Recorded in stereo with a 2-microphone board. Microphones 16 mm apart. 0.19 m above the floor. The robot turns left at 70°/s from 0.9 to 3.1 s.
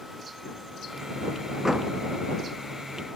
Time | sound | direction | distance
1.6 | a door slam | 35° right (ahead or behind) | ?